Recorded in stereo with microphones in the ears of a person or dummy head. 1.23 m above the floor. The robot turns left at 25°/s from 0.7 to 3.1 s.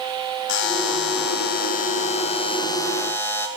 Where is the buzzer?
75° left, 1.0 m; by 3.5 s 15° left, 1.0 m.